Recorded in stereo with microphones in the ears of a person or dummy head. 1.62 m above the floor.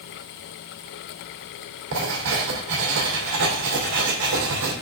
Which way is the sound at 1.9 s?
65° right (ahead or behind).